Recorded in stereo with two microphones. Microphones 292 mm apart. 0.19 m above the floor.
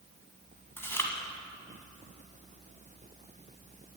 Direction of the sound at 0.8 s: 10° left (ahead or behind).